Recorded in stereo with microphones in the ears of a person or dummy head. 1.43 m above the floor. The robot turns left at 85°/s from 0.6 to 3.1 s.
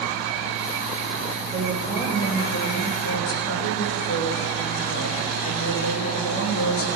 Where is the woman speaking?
135° right, 3 m; by 7.0 s 90° left, 3 m.